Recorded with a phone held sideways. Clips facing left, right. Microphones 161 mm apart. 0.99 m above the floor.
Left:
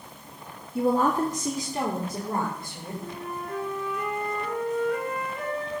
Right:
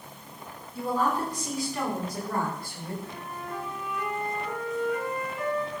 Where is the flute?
65° left (ahead or behind), 7 m.